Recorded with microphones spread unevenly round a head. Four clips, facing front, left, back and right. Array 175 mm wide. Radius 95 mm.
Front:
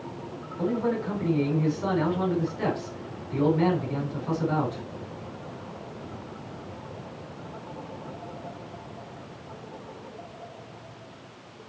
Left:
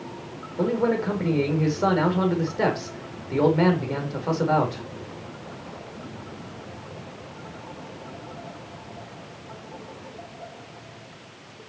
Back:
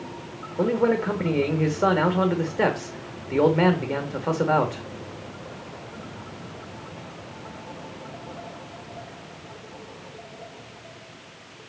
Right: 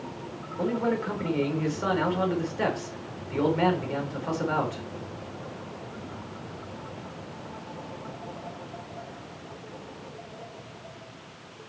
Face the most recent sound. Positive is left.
turn(degrees=160)